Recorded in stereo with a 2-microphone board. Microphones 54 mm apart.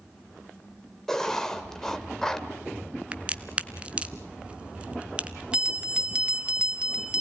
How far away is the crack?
About 0.9 m.